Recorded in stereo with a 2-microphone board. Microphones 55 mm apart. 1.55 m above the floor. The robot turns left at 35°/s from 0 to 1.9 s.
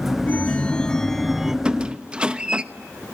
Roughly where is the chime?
Ahead left.